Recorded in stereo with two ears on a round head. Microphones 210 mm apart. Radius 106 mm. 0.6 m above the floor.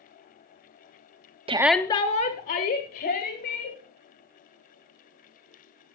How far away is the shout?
About 0.6 m.